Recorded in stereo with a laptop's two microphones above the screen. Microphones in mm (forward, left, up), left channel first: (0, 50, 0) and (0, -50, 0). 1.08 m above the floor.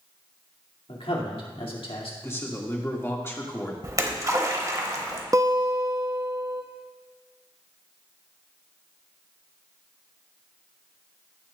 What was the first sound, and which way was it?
A man speaking, 65° left (ahead or behind).